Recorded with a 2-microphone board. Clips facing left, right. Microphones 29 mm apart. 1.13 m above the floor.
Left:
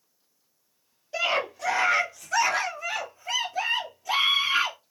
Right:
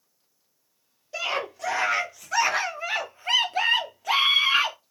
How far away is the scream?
About 1.4 m.